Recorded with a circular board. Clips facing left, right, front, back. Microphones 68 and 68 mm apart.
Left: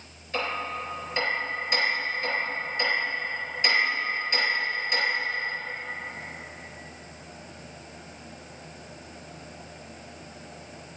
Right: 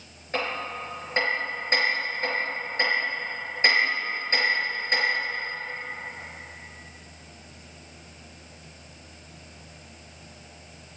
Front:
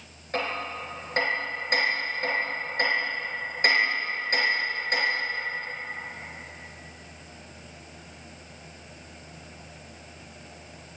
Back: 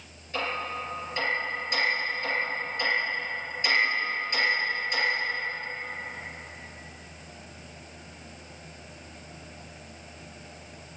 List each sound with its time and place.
0.3 s hammering: 40° right, 5 m